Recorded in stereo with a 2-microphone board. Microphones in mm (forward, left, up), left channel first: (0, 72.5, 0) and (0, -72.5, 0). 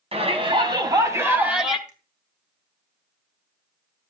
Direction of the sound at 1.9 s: 60° right (ahead or behind).